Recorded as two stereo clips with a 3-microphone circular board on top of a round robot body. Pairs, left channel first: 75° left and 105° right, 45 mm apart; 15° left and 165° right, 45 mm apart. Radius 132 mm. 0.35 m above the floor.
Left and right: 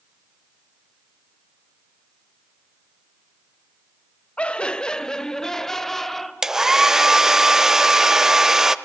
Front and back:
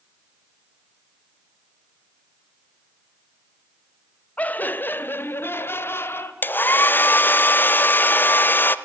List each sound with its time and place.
4.4 s laughter: 35° left, 1.0 m; by 6.3 s 5° right, 2 m
6.4 s a hair dryer: 25° right, 0.9 m